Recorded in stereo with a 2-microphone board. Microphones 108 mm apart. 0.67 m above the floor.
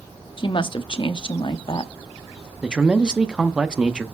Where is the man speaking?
10° right (ahead or behind), 0.7 m.